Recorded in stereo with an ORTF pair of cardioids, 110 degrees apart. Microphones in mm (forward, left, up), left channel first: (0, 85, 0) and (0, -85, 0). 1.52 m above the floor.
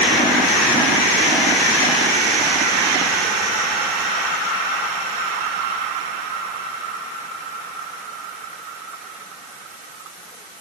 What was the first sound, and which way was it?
Only background noise.